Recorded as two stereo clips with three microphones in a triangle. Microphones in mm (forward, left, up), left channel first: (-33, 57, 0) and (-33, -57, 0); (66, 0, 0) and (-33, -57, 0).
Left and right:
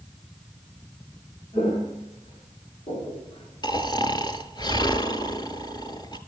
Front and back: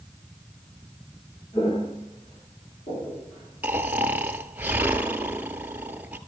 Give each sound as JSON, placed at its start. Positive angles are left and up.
{"t": 1.5, "sound": "footsteps", "azimuth_deg": 60, "distance_m": 4.5}
{"t": 3.6, "sound": "snoring", "azimuth_deg": 135, "distance_m": 0.8}